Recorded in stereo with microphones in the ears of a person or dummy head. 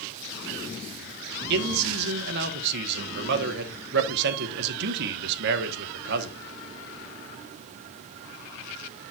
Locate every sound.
1.5 s a man speaking: 65° right (ahead or behind), 1.0 m